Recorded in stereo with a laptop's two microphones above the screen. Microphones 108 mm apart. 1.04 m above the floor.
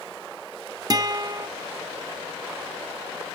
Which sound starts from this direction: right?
A guitar, at 0.9 s.